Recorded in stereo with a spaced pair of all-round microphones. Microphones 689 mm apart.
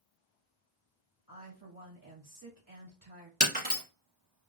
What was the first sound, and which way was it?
A woman speaking, 30° right (ahead or behind).